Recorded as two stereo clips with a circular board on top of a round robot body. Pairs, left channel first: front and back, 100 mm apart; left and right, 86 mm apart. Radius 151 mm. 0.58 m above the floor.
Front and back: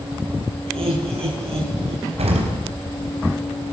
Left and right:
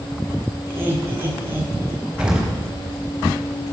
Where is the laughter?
155° right, 9 m.